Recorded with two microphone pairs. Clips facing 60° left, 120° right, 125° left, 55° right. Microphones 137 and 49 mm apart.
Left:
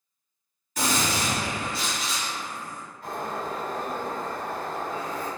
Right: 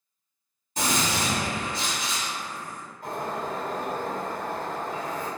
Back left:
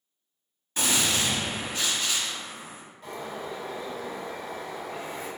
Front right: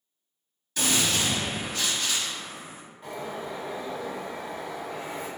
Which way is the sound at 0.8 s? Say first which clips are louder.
Even, even; 175° right.